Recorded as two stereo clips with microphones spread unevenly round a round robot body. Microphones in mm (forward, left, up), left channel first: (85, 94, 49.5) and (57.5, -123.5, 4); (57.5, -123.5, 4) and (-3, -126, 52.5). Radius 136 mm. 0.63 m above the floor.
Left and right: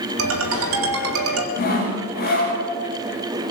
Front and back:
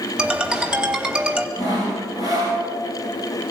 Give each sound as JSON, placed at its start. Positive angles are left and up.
{"t": 0.2, "sound": "a ringtone", "azimuth_deg": -95, "distance_m": 3.0}
{"t": 1.6, "sound": "sawing", "azimuth_deg": 40, "distance_m": 9.0}